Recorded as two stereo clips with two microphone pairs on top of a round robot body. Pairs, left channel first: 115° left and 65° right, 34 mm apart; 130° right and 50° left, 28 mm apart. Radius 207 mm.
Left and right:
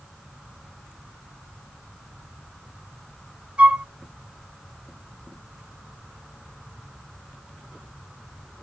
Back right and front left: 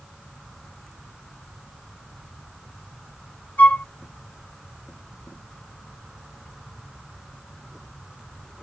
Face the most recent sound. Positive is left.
turn(degrees=-110)